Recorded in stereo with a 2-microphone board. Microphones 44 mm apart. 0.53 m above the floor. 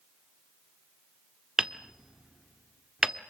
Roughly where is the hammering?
Centre.